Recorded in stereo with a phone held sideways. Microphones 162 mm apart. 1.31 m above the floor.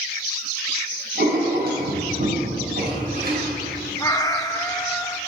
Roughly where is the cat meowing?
Left.